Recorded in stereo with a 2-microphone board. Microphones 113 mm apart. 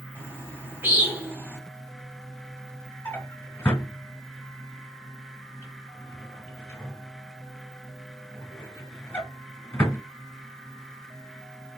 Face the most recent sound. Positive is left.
turn(degrees=20)  # may be behind; listen again after turning